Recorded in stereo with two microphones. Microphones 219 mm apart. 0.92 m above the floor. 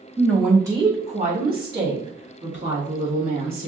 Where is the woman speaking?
5° left (ahead or behind), 1.0 m; by 3.7 s 70° right (ahead or behind), 2.5 m.